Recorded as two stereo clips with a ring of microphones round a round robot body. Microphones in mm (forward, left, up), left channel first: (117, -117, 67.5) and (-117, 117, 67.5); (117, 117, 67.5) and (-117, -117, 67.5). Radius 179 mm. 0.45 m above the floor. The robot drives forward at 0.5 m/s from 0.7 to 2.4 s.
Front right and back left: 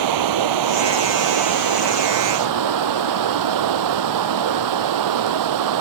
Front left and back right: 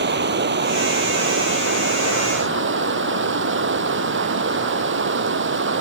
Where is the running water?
165° left.